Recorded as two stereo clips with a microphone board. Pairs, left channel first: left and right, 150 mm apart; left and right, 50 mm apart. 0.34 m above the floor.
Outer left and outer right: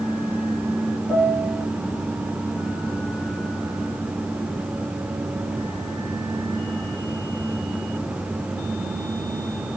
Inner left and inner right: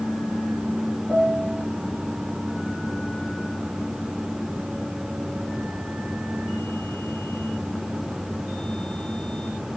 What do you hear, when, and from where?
1.1 s a piano: centre (ahead or behind), 5 m